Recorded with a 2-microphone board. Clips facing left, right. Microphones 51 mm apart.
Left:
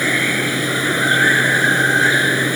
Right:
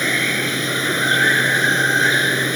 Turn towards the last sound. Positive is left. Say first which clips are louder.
# left 2 dB
turn(degrees=5)  # may be behind; listen again after turning